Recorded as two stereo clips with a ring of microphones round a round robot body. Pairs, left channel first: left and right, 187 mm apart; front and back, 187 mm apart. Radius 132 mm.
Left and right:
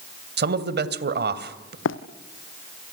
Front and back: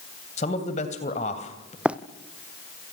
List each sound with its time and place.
0.4 s a man speaking: 65° right, 2.5 m
1.9 s running footsteps: 95° left, 1.4 m